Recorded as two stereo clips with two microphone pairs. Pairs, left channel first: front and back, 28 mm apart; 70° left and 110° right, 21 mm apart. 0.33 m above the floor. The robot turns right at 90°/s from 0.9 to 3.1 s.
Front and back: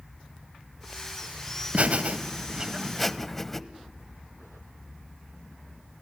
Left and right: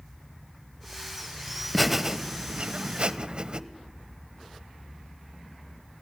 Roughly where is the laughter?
Behind left.